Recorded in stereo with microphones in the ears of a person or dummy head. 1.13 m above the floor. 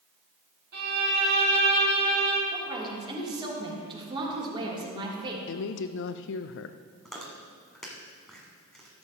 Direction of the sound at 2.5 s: 20° right (ahead or behind).